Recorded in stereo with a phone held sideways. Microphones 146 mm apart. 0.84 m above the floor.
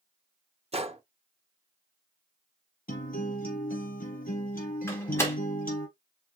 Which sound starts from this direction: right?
A gunshot, at 0.7 s.